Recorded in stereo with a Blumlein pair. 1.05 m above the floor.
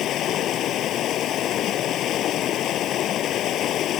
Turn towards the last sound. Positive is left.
turn(degrees=30)